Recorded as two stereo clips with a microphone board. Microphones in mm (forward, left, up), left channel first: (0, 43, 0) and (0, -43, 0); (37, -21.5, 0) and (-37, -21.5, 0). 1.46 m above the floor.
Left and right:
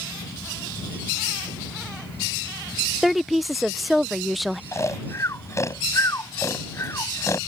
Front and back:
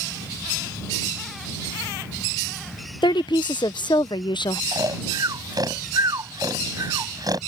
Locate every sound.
3.0 s a woman speaking: straight ahead
4.7 s snoring: 145° left